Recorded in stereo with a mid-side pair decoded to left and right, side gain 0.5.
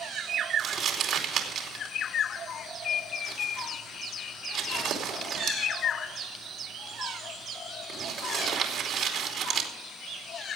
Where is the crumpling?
60° right, 2.5 m.